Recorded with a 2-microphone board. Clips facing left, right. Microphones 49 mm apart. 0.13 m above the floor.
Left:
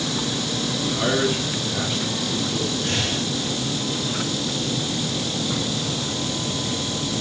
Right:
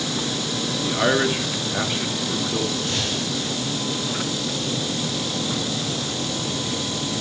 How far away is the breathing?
About 8 m.